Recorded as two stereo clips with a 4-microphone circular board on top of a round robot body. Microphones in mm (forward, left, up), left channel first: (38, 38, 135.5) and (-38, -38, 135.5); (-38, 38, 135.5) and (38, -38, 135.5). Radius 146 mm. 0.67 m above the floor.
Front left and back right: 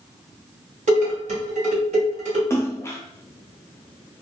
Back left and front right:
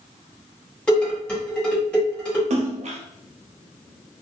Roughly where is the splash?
Ahead right.